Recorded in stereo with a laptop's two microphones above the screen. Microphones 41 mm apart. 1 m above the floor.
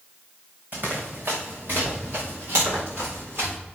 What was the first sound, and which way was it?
Running footsteps, 55° right (ahead or behind).